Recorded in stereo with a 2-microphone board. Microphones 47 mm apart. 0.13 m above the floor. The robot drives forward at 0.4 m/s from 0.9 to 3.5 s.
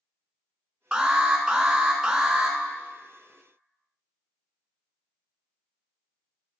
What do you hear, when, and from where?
0.9 s an alarm: 15° right (ahead or behind), 0.8 m